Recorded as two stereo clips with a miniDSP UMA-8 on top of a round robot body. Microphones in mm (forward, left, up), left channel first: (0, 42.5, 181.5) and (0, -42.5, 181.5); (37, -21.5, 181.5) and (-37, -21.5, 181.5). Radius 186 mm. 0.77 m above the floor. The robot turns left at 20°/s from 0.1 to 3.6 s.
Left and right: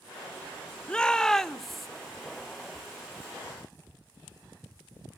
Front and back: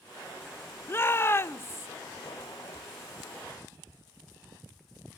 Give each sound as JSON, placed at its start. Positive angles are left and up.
{"t": 0.9, "sound": "a shout", "azimuth_deg": 20, "distance_m": 0.7}